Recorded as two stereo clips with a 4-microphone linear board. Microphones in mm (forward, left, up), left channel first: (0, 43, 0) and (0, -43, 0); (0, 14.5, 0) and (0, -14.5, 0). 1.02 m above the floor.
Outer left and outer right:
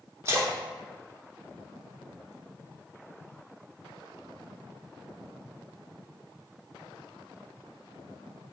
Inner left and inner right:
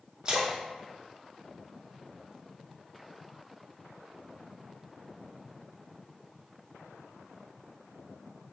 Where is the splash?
30° right (ahead or behind), 0.6 m.